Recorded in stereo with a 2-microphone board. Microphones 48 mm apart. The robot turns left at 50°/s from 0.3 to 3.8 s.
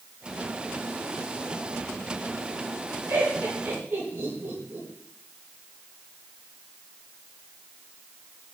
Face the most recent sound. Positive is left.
turn(degrees=-50)  # may be behind; listen again after turning